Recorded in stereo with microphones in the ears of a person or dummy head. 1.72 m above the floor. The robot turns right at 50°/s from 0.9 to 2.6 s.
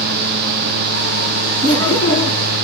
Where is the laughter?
120° right, 2 m; by 2.5 s 75° right, 2 m.